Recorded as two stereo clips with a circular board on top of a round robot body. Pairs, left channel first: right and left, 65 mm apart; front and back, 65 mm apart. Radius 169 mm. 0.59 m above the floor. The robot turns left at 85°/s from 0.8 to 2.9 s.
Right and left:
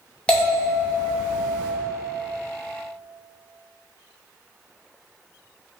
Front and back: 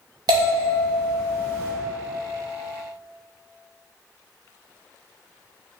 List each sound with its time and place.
0.3 s a bell: 165° right, 0.9 m; by 1.7 s 120° left, 0.9 m